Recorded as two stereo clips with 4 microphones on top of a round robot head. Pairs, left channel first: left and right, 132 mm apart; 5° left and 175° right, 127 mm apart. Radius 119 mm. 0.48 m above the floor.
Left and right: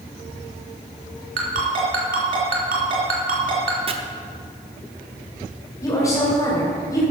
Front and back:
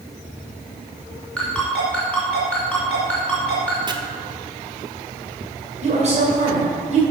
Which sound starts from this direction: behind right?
Chopping, at 3.9 s.